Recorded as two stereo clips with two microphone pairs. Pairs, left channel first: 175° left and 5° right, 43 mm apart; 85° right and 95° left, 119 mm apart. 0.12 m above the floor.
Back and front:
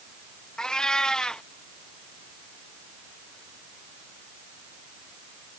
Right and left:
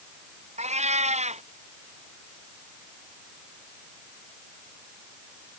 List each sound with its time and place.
0.6 s a cat meowing: 100° left